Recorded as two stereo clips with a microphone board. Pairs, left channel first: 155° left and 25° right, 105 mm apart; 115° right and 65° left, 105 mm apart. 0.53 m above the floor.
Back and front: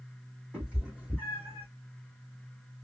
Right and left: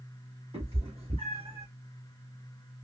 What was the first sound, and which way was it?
A cat meowing, 60° left.